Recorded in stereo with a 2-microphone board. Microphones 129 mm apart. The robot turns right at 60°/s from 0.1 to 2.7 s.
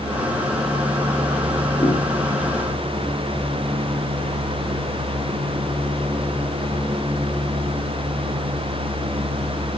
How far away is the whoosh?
About 7 m.